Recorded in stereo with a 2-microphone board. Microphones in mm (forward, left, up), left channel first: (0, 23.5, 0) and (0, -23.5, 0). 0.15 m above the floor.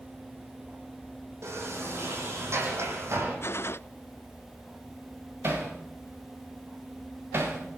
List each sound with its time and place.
1.4 s a sliding door: 65° right (ahead or behind), 9 m
3.4 s a gunshot: 55° left (ahead or behind), 0.6 m
5.4 s hammering: 45° right (ahead or behind), 6.5 m